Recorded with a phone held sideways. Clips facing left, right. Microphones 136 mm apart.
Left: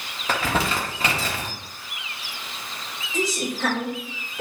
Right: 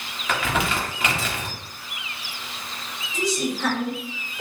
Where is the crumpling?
35° left (ahead or behind), 1.4 m.